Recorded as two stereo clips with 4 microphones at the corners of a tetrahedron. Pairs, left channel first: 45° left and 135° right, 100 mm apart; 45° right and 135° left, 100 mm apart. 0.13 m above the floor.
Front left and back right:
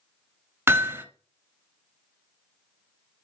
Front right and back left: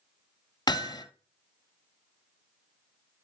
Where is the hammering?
75° right, 1.0 m.